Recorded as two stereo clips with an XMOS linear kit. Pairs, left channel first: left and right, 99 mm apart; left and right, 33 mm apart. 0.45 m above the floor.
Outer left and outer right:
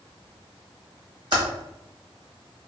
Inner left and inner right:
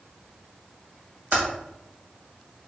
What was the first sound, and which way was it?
Typing on a keyboard, 50° right (ahead or behind).